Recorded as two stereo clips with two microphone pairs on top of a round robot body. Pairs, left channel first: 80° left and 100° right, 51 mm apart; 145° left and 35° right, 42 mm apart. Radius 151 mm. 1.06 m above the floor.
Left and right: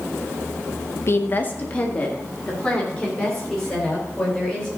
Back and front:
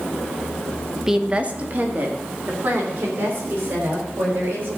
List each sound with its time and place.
1.1 s a woman speaking: 50° left, 0.9 m; by 4.7 s straight ahead, 6 m